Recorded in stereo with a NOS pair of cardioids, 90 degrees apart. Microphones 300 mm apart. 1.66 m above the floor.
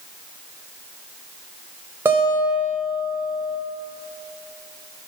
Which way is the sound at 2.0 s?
5° right.